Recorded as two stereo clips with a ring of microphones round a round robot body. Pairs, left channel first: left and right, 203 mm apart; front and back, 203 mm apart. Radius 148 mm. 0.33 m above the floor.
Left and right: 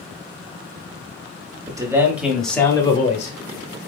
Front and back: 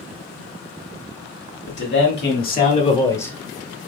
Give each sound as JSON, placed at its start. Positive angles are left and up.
{"t": 1.7, "sound": "a man speaking", "azimuth_deg": -20, "distance_m": 2.0}